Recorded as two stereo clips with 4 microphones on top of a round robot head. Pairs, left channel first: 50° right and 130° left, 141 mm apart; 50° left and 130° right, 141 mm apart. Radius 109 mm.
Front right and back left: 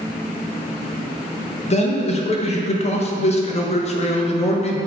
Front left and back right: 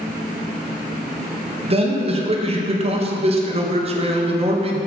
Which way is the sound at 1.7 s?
85° right.